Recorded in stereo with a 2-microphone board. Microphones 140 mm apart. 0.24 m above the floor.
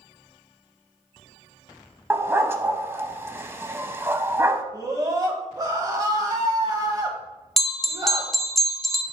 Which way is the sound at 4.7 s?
30° right (ahead or behind).